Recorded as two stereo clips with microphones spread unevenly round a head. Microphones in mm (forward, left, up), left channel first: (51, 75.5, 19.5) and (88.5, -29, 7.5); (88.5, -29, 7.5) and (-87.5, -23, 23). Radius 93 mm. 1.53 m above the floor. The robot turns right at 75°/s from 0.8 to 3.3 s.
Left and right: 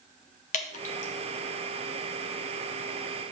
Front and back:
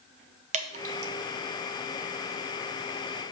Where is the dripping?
125° left, 0.8 m; by 1.1 s 150° left, 0.8 m.